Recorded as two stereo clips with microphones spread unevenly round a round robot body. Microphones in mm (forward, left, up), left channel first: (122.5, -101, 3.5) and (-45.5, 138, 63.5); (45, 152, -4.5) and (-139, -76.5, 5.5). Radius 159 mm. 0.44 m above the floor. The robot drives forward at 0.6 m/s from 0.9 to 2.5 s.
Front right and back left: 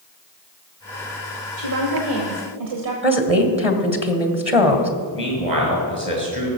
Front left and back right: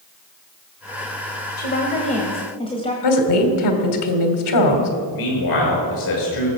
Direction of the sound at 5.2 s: 55° left.